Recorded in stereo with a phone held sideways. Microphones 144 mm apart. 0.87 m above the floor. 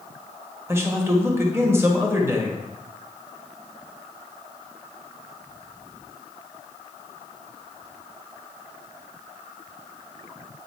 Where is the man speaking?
15° right (ahead or behind), 1.6 m.